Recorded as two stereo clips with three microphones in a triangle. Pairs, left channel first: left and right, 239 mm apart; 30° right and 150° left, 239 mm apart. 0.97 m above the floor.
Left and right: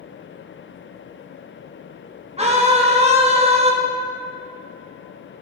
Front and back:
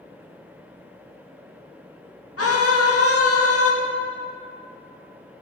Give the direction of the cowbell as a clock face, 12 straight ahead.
I don't hear a cowbell.